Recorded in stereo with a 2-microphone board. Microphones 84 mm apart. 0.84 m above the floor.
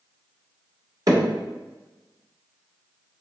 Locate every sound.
1.1 s hammering: 45° right (ahead or behind), 1.5 m